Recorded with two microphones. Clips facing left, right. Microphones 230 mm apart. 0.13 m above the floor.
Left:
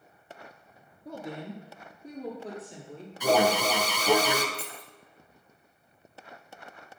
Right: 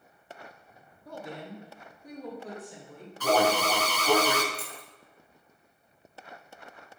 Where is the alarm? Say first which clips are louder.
Left 1 dB; 15° left (ahead or behind), 0.9 m.